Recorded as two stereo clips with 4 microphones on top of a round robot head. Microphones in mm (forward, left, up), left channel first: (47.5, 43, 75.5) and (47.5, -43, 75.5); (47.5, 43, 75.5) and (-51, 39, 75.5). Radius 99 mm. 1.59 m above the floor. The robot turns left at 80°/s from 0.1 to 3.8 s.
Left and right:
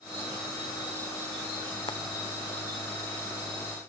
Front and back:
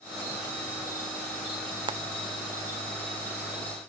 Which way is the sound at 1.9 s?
145° left.